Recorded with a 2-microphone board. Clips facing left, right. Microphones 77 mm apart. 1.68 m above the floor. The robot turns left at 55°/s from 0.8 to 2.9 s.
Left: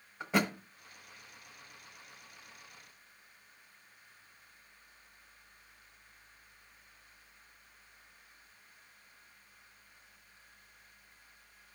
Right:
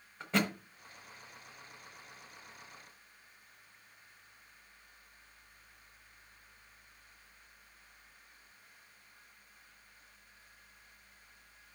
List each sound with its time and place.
0.2 s a thud: 10° left (ahead or behind), 1.0 m